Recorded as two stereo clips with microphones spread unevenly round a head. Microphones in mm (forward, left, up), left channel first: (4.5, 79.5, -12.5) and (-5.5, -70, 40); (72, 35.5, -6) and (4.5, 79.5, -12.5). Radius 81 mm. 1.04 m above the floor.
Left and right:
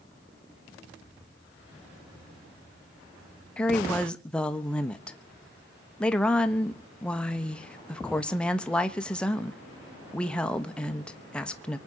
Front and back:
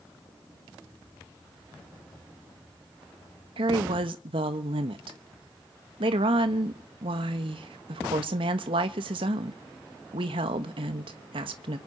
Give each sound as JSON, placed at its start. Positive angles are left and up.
{"t": 3.6, "sound": "a woman speaking", "azimuth_deg": 160, "distance_m": 1.2}